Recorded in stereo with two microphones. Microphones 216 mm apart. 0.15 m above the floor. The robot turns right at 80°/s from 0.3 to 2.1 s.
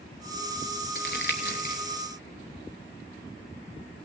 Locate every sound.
0.9 s crumpling: 50° left (ahead or behind), 1.0 m; by 1.8 s 35° left (ahead or behind), 1.0 m